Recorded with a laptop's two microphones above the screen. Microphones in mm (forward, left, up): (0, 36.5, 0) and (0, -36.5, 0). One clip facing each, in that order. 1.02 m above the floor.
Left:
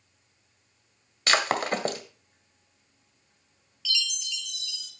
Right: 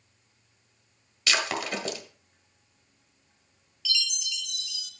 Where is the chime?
Centre (ahead or behind), 2.5 m.